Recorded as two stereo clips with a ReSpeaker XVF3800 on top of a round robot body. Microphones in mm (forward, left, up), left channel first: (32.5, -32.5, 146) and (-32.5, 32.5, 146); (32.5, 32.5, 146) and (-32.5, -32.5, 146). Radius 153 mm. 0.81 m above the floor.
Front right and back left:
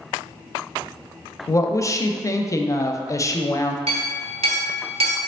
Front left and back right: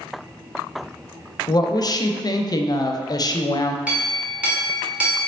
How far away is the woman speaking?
About 0.5 m.